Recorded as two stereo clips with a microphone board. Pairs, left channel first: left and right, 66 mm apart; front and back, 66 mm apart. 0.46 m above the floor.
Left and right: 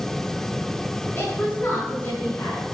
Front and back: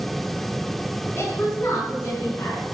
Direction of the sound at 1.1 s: 45° left.